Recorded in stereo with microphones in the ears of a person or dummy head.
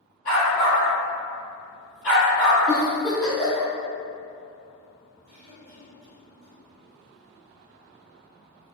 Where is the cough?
55° right (ahead or behind), 0.9 m.